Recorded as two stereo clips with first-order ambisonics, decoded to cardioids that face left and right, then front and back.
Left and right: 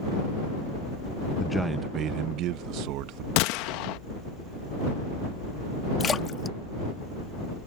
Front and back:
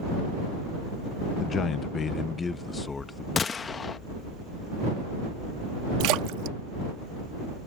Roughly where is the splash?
Behind.